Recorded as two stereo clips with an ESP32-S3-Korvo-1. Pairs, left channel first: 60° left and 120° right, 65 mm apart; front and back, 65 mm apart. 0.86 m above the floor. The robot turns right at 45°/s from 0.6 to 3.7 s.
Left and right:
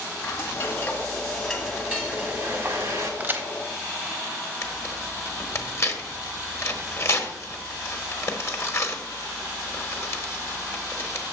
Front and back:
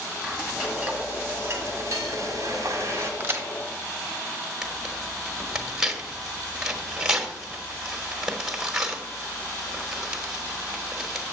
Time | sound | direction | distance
0.2 | frying | 110° left | 1.6 m
3.2 | a crack | 155° right | 1.0 m
4.6 | tearing paper | 100° left | 1.0 m